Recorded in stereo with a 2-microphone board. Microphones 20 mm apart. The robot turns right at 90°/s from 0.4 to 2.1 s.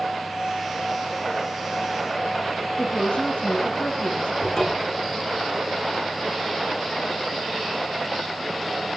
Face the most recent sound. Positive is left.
turn(degrees=25)  # may be behind; listen again after turning